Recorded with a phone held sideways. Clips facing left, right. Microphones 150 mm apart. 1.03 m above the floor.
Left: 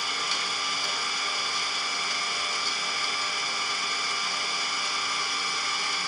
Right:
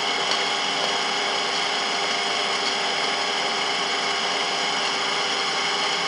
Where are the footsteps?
No footsteps in this recording.